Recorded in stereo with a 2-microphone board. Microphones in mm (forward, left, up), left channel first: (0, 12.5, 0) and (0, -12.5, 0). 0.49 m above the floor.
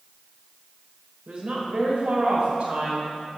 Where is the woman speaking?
60° right (ahead or behind), 1.5 m; by 3.4 s 65° right (ahead or behind), 2.5 m.